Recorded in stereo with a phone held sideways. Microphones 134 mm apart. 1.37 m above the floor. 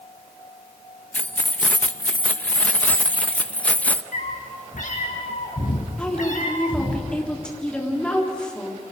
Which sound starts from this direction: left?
A cat meowing, at 4.1 s.